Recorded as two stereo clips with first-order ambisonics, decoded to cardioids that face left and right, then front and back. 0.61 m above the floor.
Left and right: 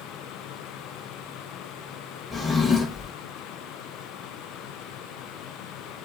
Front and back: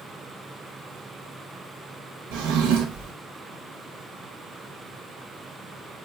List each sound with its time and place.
2.3 s a drawer: 170° left, 0.6 m